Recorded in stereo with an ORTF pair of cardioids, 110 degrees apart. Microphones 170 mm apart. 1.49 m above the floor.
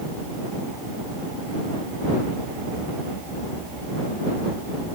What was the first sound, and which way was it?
Only background noise.